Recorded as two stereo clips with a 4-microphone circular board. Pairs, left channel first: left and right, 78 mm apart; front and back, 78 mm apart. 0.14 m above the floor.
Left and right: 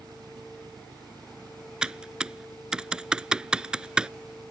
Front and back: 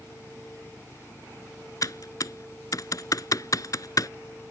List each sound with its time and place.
0.0 s an engine running: 60° right
1.8 s typing on a keyboard: 15° right